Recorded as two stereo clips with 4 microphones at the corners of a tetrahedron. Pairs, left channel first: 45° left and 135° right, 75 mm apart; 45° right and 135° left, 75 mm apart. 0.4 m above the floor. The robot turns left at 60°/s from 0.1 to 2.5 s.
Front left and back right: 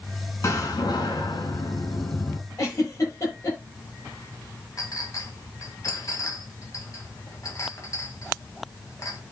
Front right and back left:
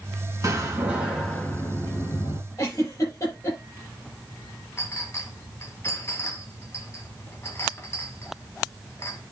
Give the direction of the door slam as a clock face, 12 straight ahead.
9 o'clock.